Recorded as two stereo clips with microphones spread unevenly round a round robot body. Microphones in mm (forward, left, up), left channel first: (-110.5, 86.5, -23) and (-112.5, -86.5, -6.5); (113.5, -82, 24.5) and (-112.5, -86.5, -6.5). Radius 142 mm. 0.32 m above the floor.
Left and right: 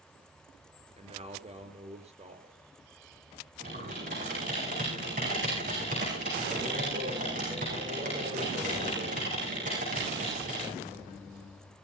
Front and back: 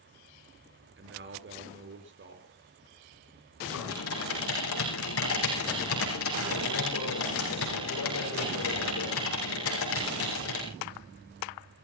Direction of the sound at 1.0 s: 145° right.